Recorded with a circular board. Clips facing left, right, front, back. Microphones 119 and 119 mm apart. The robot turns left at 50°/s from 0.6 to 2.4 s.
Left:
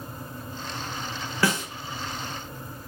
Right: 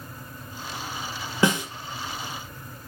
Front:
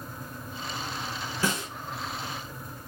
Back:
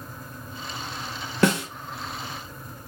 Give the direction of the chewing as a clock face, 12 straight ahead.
No chewing in this recording.